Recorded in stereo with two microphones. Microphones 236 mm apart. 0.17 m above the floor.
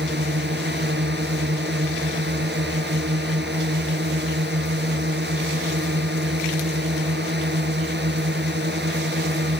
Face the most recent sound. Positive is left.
turn(degrees=-45)  # may be behind; listen again after turning